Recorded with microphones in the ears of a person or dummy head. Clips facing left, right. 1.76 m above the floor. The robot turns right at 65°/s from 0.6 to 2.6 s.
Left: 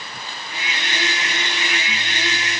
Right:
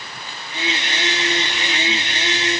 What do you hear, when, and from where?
Only background noise.